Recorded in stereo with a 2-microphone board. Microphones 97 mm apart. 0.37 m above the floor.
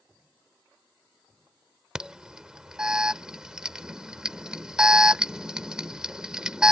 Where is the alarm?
10° right (ahead or behind).